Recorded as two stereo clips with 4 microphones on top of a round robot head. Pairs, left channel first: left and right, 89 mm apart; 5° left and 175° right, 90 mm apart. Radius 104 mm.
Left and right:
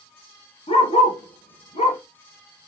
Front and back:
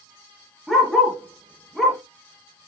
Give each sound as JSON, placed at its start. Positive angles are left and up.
{"t": 0.7, "sound": "a dog barking", "azimuth_deg": 90, "distance_m": 3.5}